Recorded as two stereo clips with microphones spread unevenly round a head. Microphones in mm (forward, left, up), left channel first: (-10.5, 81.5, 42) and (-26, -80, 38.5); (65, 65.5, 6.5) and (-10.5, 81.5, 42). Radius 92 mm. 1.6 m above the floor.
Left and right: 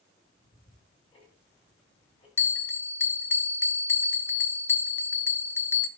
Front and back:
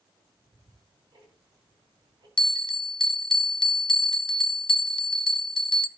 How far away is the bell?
About 0.7 m.